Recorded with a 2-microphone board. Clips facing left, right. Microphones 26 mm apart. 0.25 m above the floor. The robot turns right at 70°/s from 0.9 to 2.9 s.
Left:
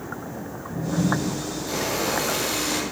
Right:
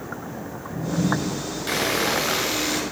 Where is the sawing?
85° right, 3 m; by 2.8 s 5° right, 3 m.